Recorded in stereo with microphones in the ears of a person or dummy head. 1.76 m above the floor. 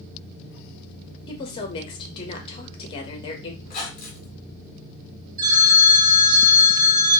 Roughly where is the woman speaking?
Left.